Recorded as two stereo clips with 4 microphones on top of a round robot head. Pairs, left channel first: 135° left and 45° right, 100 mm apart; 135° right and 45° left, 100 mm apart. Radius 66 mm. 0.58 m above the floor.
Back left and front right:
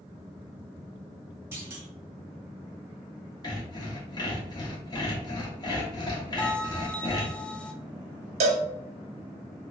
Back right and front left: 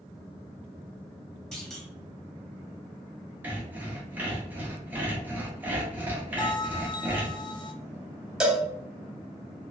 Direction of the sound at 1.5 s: 65° right.